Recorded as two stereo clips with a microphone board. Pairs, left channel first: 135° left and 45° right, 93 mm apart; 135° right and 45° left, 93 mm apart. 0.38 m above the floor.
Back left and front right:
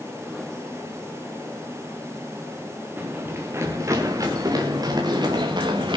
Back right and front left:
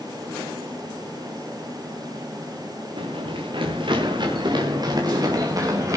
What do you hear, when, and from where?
3.0 s running footsteps: 25° left, 5 m; by 6.0 s 10° right, 6 m